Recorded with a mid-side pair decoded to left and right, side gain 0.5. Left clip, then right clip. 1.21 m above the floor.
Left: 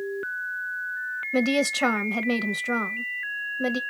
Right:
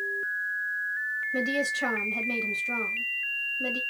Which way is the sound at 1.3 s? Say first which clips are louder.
Left 7 dB; 65° left.